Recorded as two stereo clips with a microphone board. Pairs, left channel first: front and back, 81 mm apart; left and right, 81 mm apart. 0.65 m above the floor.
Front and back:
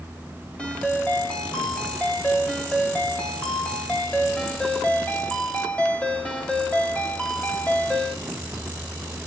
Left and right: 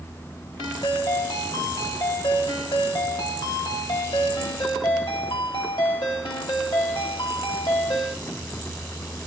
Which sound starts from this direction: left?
A ringtone, at 0.6 s.